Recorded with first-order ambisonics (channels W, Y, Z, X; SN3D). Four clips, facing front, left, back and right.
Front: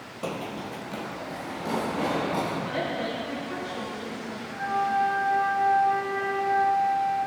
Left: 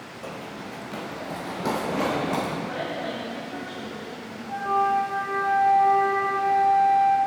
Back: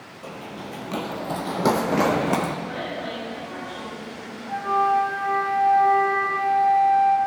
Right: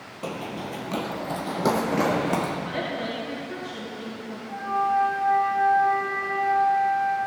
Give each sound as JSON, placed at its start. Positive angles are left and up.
{"t": 0.2, "sound": "running footsteps", "azimuth_deg": -35, "distance_m": 0.7}
{"t": 2.6, "sound": "a woman speaking", "azimuth_deg": -55, "distance_m": 4.5}
{"t": 4.5, "sound": "a flute", "azimuth_deg": 160, "distance_m": 2.0}